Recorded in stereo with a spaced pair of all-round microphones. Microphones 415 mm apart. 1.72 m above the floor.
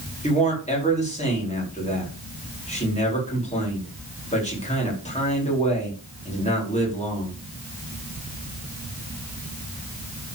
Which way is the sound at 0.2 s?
15° left (ahead or behind).